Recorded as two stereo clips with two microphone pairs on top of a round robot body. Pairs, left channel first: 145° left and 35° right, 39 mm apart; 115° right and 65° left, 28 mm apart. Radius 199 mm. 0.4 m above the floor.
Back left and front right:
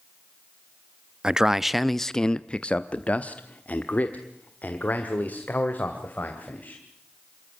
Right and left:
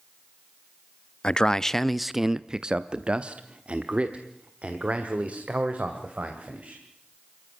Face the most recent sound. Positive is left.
turn(degrees=100)